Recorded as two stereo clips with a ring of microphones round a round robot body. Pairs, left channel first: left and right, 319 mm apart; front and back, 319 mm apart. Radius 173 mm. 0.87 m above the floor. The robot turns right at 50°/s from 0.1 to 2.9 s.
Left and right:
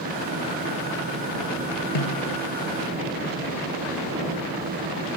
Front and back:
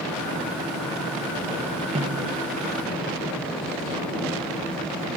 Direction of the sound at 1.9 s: 105° left.